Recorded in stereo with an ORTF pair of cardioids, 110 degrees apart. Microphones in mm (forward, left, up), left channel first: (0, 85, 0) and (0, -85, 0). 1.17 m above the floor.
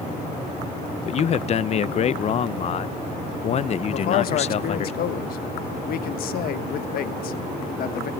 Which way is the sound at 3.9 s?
60° left.